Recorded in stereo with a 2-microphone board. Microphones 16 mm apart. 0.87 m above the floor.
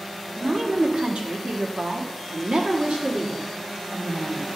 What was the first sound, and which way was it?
A woman speaking, 50° right (ahead or behind).